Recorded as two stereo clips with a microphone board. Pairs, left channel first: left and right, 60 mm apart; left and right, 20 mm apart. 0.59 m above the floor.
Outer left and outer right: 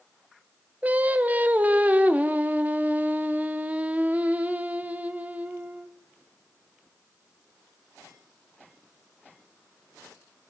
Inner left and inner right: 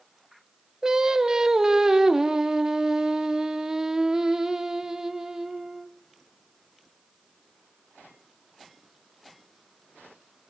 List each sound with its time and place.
0.8 s singing: 25° right (ahead or behind), 0.6 m